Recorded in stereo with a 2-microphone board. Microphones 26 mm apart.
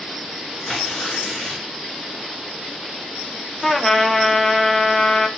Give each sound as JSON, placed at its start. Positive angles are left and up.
{"t": 0.7, "sound": "tearing paper", "side_deg": 5, "distance_m": 8.5}
{"t": 3.6, "sound": "a trumpet", "side_deg": 15, "distance_m": 1.2}